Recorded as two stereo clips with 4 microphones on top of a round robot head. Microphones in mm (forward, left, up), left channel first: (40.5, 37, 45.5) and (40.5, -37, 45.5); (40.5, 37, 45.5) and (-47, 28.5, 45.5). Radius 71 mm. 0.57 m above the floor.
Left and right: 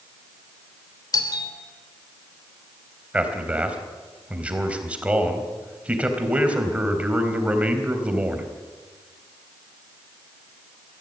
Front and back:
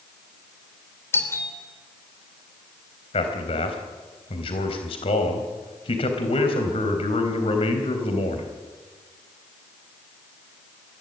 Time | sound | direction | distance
1.1 | a doorbell | 65° left | 3 m
3.1 | a man speaking | 15° right | 3.5 m